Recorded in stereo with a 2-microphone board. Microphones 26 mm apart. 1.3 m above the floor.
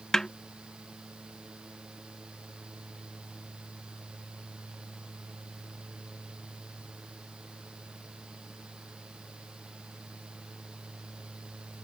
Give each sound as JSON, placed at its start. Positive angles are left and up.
{"t": 0.1, "sound": "a snare drum", "side_deg": 20}